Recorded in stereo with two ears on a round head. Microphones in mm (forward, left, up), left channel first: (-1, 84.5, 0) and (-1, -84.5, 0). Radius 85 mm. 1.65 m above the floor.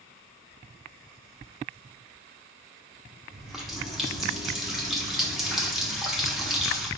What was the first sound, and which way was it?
A running tap, centre (ahead or behind).